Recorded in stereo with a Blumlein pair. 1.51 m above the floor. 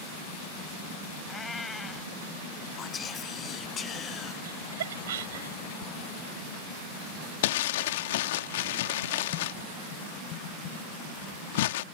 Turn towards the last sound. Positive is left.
turn(degrees=55)